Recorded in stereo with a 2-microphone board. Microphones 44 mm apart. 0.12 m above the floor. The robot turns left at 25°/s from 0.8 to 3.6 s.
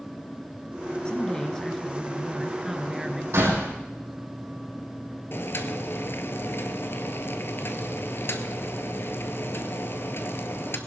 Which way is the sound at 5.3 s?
55° left (ahead or behind).